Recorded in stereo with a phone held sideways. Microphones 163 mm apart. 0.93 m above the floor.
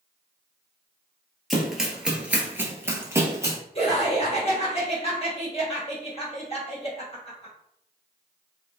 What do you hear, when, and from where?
1.5 s running footsteps: centre (ahead or behind), 1.0 m; by 3.6 s 20° right (ahead or behind), 1.2 m
3.8 s laughter: 35° left (ahead or behind), 1.7 m